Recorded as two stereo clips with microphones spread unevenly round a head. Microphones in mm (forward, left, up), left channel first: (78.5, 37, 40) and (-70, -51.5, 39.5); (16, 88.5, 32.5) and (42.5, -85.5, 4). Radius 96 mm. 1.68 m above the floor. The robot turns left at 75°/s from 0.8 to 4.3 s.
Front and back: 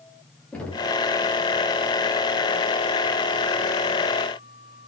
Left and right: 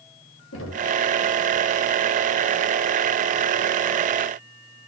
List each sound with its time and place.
0.5 s knocking: 115° left, 3 m; by 1.0 s 100° left, 3 m